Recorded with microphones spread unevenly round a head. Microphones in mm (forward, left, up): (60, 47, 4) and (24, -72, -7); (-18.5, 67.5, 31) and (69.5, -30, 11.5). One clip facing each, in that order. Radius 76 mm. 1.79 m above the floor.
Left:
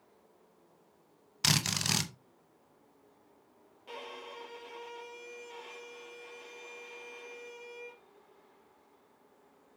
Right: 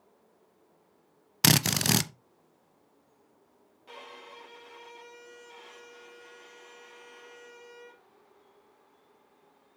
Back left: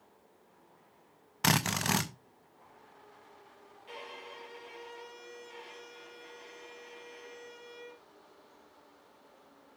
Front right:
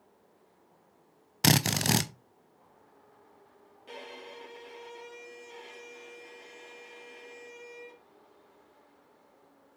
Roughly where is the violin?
Ahead.